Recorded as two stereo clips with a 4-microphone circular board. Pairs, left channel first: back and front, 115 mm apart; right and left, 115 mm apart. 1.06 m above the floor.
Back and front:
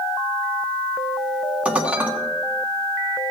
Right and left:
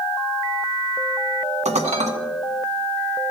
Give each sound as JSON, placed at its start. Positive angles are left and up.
{"t": 1.6, "sound": "dishes clattering", "azimuth_deg": 80, "distance_m": 1.4}